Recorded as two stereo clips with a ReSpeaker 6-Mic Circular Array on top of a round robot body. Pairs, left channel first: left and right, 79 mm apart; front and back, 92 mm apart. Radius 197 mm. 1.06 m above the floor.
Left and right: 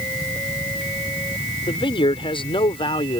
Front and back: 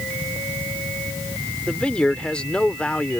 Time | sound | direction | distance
1.7 | a man speaking | 80° left | ?